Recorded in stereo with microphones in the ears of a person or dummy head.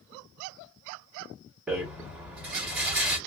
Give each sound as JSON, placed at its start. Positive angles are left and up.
{"t": 1.7, "sound": "a rattle", "side_deg": -5, "distance_m": 1.2}